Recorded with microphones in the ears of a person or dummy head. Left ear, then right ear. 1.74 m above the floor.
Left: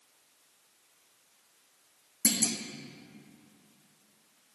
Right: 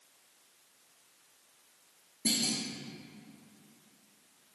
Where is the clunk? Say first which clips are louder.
Left 1 dB; 60° left (ahead or behind), 0.9 m.